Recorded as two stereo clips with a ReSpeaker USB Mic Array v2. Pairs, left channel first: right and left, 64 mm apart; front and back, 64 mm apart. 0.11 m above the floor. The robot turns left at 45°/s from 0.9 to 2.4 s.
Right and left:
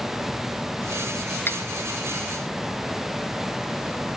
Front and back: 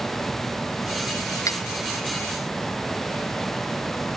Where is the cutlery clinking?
30° right; by 1.6 s 40° right.